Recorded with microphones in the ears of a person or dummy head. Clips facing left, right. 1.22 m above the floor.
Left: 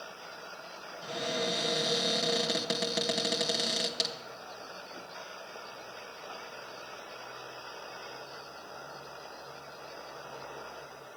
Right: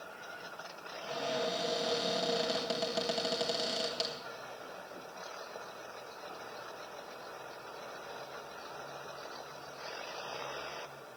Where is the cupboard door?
25° left (ahead or behind), 1.5 m.